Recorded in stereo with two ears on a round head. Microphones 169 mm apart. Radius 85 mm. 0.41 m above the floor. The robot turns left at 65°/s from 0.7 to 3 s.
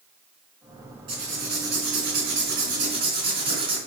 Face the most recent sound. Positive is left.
turn(degrees=-150)